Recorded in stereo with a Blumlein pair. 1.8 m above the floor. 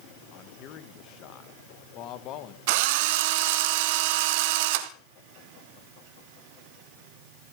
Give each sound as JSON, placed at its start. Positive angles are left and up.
{"t": 0.3, "sound": "a man speaking", "azimuth_deg": 35, "distance_m": 2.0}
{"t": 2.7, "sound": "a drill", "azimuth_deg": -50, "distance_m": 2.0}